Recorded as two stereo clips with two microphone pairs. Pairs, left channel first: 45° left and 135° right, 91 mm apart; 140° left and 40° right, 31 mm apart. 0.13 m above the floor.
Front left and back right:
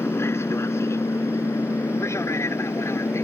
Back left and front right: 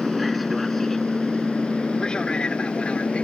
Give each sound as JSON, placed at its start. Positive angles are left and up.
{"t": 0.0, "sound": "an aircraft", "azimuth_deg": 45}